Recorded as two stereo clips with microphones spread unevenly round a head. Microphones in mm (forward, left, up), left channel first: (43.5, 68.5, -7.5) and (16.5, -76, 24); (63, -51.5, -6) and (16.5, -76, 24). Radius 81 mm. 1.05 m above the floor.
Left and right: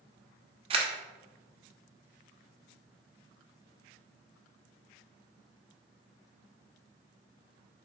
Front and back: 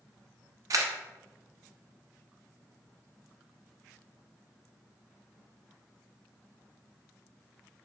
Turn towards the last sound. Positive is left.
turn(degrees=-160)